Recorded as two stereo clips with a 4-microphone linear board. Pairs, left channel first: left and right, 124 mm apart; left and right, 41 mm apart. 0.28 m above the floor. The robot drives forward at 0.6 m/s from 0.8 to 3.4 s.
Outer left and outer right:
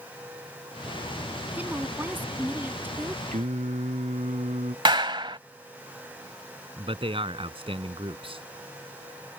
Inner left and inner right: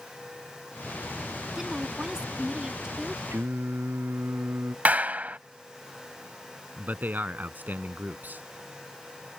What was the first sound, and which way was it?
A woman speaking, 15° right (ahead or behind).